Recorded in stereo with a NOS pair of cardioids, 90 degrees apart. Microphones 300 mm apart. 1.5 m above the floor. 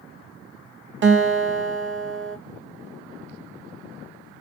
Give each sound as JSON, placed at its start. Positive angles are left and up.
{"t": 1.0, "sound": "a guitar", "azimuth_deg": -40, "distance_m": 1.1}